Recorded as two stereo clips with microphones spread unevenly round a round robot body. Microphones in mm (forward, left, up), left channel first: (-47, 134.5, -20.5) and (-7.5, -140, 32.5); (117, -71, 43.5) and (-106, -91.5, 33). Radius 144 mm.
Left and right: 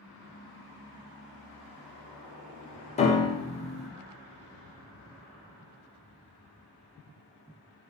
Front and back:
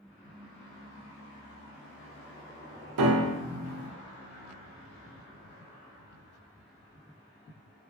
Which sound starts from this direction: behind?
A piano, at 3.0 s.